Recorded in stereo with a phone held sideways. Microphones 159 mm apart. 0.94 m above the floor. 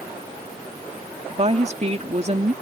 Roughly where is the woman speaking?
Right.